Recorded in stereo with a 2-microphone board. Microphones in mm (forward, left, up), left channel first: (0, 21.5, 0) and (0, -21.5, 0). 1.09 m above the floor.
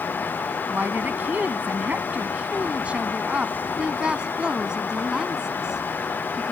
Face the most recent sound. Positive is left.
turn(degrees=-10)  # may be behind; listen again after turning